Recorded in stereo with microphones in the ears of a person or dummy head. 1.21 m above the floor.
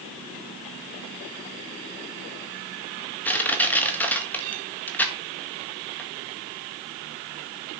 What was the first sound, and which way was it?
Crushing, 10° left (ahead or behind).